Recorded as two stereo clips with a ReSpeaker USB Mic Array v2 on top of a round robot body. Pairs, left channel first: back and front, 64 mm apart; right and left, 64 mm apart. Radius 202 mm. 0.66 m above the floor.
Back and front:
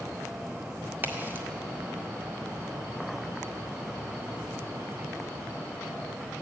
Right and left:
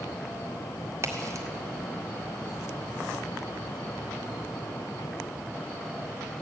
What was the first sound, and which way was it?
A crack, 55° left.